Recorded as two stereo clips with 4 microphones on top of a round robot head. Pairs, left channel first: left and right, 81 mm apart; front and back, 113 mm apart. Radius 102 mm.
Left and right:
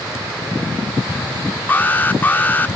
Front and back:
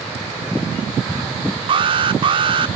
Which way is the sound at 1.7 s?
150° left.